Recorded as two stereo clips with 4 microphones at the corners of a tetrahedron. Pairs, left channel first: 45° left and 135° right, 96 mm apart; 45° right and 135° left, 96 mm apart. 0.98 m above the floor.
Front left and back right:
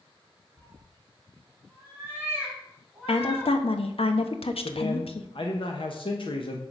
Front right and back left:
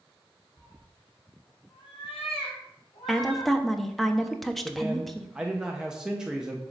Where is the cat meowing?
80° right, 3.5 m; by 3.5 s 40° right, 3 m.